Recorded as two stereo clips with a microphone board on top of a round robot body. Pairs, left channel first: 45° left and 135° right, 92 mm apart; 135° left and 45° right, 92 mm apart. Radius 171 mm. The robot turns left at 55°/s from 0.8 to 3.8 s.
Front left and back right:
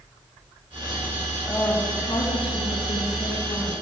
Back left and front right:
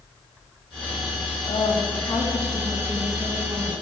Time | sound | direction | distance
1.5 | a woman speaking | 110° left | 2.5 m